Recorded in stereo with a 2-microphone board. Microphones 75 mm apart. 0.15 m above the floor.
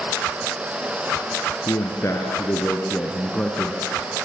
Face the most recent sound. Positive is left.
turn(degrees=10)  # may be behind; listen again after turning